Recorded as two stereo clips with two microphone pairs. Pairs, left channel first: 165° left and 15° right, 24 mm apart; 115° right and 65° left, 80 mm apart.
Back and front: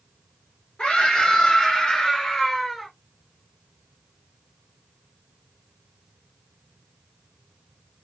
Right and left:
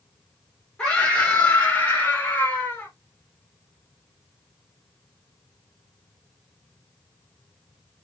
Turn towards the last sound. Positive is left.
turn(degrees=-130)